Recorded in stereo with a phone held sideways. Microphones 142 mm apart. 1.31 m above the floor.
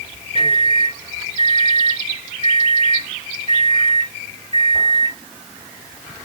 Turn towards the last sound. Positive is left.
turn(degrees=-40)  # may be behind; listen again after turning